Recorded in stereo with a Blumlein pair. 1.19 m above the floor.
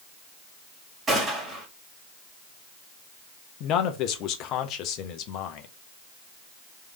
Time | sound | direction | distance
1.1 | a gunshot | 15° right | 2 m
3.6 | a man speaking | 35° left | 0.8 m